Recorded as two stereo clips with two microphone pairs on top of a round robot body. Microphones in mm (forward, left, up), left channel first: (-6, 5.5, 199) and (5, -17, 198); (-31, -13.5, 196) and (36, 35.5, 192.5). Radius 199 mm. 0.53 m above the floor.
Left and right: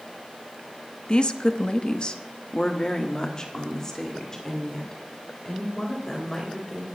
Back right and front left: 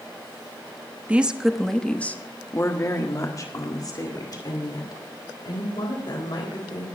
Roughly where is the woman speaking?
Left.